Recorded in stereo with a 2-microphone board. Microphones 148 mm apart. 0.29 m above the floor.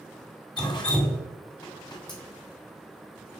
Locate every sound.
0.6 s dripping: 30° left (ahead or behind), 1.5 m